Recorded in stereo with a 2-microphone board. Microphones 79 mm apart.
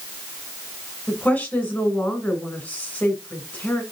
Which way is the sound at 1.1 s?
20° left (ahead or behind).